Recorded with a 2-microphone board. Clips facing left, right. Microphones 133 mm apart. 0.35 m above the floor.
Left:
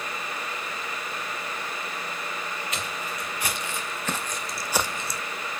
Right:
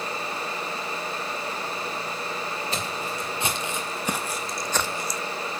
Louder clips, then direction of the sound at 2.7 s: Right 3 dB; 30° right (ahead or behind).